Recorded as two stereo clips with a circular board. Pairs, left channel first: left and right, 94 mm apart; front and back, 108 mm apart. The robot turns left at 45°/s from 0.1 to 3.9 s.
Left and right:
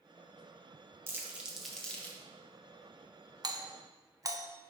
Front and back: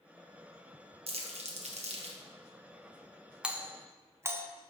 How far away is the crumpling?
About 1.0 m.